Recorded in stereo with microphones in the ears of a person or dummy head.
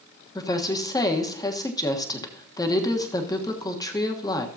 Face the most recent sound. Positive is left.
turn(degrees=30)  # may be behind; listen again after turning